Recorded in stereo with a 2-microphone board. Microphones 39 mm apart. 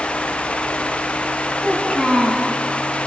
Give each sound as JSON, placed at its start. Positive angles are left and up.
{"t": 1.6, "sound": "a child speaking", "side_deg": 15, "distance_m": 6.0}